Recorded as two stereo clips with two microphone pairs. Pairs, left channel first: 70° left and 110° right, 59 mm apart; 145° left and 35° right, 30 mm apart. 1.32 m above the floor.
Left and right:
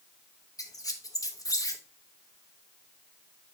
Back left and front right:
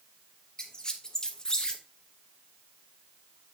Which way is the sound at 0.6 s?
75° left.